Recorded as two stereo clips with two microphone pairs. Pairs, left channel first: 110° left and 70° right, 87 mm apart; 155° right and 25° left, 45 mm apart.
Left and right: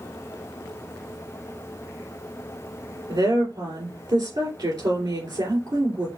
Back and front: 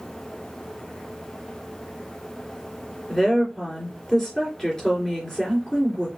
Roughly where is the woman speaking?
Right.